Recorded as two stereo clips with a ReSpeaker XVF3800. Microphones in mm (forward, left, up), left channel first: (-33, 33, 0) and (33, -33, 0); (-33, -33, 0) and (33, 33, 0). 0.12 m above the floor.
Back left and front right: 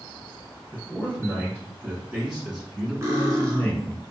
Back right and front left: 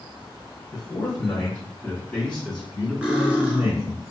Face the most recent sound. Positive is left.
turn(degrees=-20)